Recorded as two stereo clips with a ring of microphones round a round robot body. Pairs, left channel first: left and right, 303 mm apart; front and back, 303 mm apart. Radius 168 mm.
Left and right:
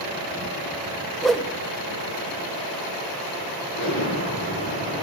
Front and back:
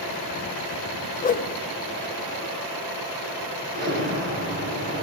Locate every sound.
1.2 s a whoosh: 5° left, 0.7 m
3.7 s an explosion: 130° left, 4 m